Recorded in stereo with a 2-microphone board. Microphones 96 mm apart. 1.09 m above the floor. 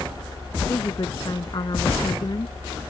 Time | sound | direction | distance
0.7 | a woman speaking | 45° left (ahead or behind) | ?